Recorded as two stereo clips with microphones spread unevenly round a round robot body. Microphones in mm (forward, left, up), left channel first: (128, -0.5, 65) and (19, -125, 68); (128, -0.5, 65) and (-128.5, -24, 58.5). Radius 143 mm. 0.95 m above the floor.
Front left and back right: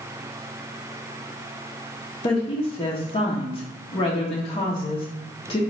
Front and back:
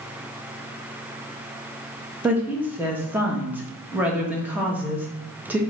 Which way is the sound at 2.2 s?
100° left.